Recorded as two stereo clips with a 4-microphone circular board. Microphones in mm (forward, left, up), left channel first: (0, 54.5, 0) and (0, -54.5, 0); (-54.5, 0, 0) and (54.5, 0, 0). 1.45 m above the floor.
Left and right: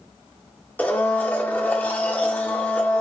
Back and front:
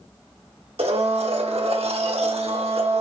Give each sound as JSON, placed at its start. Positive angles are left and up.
{"t": 0.8, "sound": "a blender", "azimuth_deg": 15, "distance_m": 1.0}